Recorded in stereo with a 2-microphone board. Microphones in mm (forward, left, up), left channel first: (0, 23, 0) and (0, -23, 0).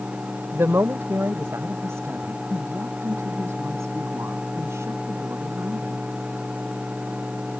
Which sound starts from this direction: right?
A woman speaking, at 0.5 s.